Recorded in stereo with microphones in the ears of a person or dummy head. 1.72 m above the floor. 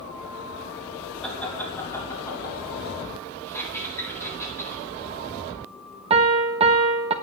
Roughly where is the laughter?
Centre.